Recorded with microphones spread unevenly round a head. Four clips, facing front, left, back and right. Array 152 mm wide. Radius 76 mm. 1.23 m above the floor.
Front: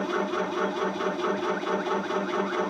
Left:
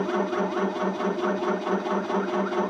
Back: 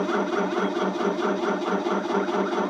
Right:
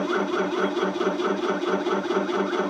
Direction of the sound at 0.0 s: 145° left.